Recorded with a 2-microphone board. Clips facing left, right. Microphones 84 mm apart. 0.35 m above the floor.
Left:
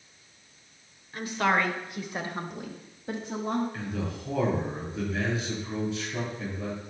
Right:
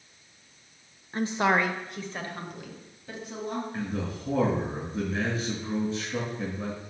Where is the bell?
I don't hear a bell.